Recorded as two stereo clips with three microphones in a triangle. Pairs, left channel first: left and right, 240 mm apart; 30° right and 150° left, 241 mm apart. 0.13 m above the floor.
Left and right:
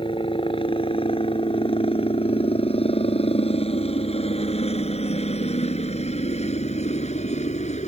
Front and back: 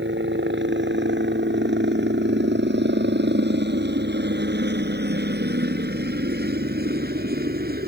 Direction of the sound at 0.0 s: 150° left.